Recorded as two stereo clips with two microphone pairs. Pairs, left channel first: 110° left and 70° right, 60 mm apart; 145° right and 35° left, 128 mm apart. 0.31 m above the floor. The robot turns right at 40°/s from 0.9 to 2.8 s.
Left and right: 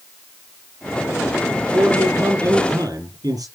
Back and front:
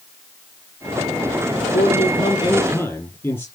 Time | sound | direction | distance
1.7 | a man speaking | 120° right | 6.5 m